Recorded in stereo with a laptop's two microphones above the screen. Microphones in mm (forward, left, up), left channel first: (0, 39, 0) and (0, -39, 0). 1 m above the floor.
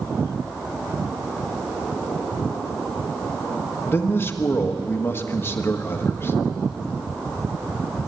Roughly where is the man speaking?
Left.